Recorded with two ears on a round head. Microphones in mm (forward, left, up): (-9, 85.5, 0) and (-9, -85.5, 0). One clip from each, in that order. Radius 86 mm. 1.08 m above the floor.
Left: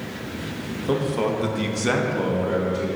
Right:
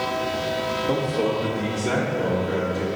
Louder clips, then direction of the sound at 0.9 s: Left 3 dB; 35° left (ahead or behind).